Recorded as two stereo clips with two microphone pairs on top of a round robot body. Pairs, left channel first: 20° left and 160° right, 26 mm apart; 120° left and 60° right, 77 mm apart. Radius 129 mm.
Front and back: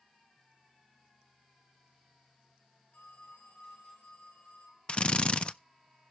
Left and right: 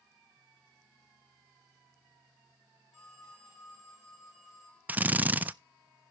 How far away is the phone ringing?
About 8.5 m.